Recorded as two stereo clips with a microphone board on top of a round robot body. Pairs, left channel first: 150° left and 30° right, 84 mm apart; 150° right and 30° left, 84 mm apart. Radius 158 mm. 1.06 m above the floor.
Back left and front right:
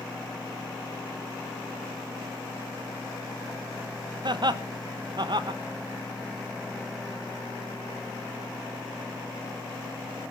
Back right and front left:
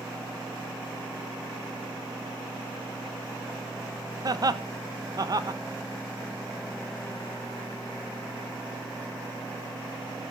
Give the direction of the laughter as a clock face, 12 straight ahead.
12 o'clock.